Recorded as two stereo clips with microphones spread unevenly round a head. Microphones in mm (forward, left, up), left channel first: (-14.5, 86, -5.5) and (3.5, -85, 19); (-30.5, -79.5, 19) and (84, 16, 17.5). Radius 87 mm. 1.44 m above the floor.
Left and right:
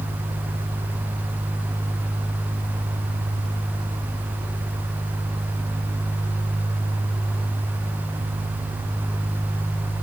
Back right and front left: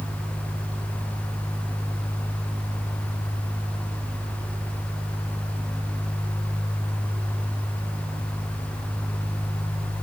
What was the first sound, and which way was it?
Only background noise.